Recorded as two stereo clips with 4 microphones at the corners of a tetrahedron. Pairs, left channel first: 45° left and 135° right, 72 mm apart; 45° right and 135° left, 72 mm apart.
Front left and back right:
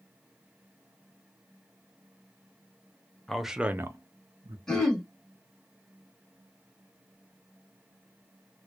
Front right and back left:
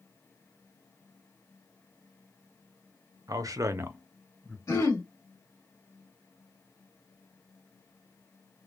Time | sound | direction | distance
3.3 | a man speaking | 125° left | 0.6 m
4.7 | throat clearing | 35° right | 1.5 m